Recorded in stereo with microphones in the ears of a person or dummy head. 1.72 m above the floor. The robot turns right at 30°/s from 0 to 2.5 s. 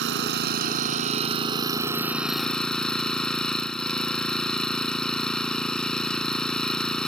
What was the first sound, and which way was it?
An engine running, 70° right.